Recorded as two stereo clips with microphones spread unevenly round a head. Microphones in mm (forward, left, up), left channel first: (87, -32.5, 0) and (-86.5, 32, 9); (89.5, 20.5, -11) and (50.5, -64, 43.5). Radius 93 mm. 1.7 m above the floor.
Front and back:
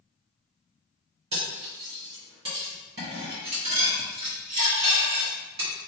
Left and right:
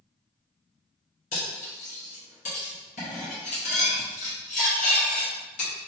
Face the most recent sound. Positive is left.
turn(degrees=105)